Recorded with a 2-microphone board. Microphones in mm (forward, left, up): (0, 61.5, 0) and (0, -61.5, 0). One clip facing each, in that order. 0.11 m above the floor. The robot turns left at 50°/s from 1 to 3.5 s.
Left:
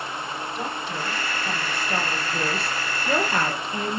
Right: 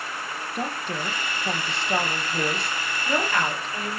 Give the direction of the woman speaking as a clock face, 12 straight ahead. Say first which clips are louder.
Right 3 dB; 3 o'clock.